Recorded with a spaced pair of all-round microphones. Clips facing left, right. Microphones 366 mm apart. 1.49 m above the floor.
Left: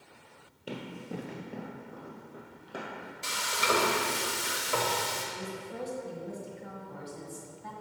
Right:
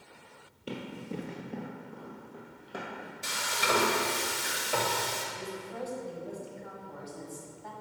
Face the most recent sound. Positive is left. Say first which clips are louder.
# left 1 dB
turn(degrees=40)  # may be behind; listen again after turning